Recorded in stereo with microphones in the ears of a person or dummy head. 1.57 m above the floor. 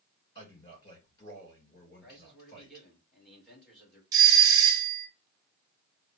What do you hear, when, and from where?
0.3 s a man speaking: 25° left (ahead or behind), 3 m
2.0 s a man speaking: centre (ahead or behind), 2.0 m
4.1 s a doorbell: 20° right (ahead or behind), 1.1 m